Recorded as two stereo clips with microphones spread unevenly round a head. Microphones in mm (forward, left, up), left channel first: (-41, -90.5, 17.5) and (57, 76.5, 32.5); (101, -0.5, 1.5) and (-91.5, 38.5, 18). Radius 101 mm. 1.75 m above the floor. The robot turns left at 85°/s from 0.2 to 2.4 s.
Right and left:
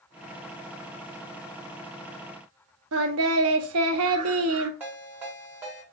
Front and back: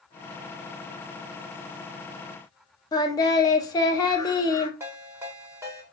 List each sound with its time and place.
2.9 s singing: 60° left, 0.6 m
4.8 s a ringtone: 120° left, 1.4 m